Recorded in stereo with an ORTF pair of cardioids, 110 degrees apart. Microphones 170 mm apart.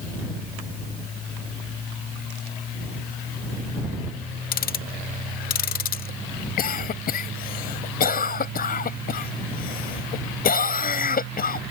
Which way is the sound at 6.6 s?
60° left.